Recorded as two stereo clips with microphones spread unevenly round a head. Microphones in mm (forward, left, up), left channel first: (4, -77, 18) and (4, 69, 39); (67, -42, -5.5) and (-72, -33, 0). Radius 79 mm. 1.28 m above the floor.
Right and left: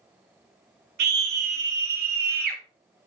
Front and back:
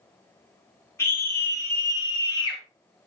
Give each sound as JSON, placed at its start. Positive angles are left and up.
{"t": 1.0, "sound": "a scream", "azimuth_deg": 75, "distance_m": 4.0}